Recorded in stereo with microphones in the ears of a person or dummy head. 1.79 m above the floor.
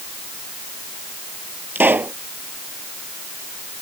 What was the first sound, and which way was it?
A pop, 10° right (ahead or behind).